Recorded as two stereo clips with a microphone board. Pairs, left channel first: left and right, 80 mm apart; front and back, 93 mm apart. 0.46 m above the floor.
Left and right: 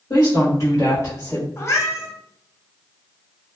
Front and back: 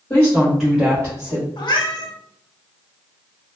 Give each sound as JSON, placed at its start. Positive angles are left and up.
{"t": 0.1, "sound": "a woman speaking", "azimuth_deg": 60, "distance_m": 1.2}
{"t": 1.6, "sound": "a cat meowing", "azimuth_deg": 35, "distance_m": 0.5}